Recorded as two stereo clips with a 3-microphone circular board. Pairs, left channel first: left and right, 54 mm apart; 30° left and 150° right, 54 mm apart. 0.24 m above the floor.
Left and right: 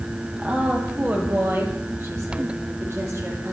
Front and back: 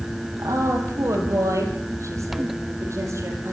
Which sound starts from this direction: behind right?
A woman speaking, at 0.4 s.